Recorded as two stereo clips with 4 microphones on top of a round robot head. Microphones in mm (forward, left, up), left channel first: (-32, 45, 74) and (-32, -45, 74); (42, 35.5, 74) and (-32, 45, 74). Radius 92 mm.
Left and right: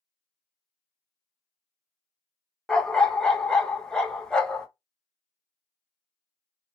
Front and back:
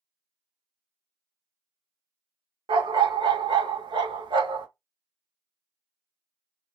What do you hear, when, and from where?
2.7 s a dog barking: 170° left, 0.5 m